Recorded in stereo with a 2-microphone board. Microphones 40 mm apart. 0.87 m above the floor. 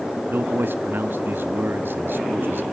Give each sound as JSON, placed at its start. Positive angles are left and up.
{"t": 0.3, "sound": "a man speaking", "side_deg": -65, "distance_m": 1.3}